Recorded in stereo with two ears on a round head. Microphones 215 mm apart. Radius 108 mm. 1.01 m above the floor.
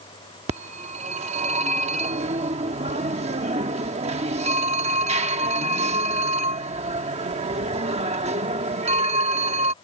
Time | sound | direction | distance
0.5 | a phone ringing | 25° right (ahead or behind) | ?